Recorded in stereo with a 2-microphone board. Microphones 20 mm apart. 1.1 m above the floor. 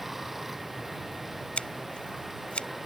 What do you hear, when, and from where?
0.0 s running water: 10° right (ahead or behind)
1.6 s scissors: 75° left (ahead or behind)